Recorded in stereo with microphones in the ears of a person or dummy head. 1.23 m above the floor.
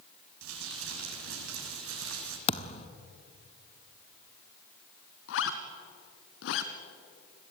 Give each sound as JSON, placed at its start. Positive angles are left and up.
{"t": 0.4, "sound": "crumpling", "side_deg": -75, "distance_m": 6.5}
{"t": 2.5, "sound": "a thud", "side_deg": 40, "distance_m": 1.2}
{"t": 5.3, "sound": "a zipper", "side_deg": 65, "distance_m": 2.5}